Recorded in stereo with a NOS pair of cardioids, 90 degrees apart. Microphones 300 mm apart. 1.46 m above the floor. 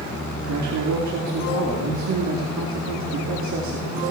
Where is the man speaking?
65° right, 4.5 m.